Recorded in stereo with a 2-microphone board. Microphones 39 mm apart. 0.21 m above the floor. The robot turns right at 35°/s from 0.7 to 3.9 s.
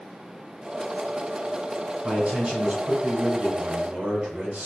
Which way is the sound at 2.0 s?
135° right.